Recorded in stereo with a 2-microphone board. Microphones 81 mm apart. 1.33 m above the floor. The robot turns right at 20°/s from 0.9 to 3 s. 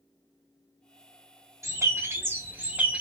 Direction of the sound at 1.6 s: 40° right (ahead or behind).